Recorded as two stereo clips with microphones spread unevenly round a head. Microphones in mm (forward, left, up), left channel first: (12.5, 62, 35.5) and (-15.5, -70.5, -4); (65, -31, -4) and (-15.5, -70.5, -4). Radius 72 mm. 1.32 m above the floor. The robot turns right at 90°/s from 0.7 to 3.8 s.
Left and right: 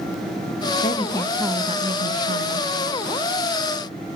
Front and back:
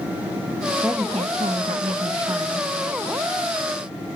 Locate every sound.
0.8 s a woman speaking: 120° left, 1.6 m; by 2.7 s 75° right, 1.6 m